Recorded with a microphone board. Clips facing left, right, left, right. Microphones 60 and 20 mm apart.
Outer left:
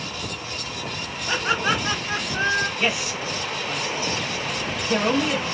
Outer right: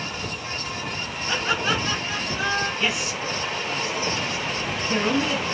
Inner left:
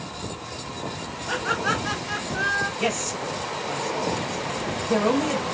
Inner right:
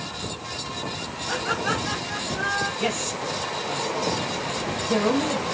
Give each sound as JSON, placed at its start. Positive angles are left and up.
{"t": 1.3, "sound": "laughter", "side_deg": 15, "distance_m": 1.3}
{"t": 2.8, "sound": "a man speaking", "side_deg": 20, "distance_m": 1.3}